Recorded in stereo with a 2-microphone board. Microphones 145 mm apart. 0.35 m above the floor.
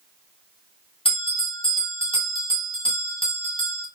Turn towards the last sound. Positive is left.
turn(degrees=40)  # may be behind; listen again after turning